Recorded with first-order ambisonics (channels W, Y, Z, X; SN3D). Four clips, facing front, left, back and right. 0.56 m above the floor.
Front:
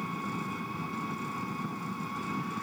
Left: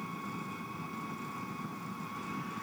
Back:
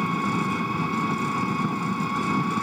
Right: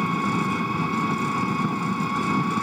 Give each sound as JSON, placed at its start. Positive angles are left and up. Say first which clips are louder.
{"t": 0.0, "sound": "an engine running", "louder": "right 17 dB, back 10 dB", "azimuth_deg": -125}